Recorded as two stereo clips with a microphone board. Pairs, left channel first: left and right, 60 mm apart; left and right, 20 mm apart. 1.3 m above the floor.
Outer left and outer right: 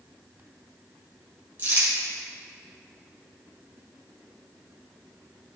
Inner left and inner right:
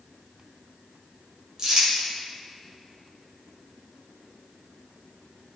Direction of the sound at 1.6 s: 35° right (ahead or behind).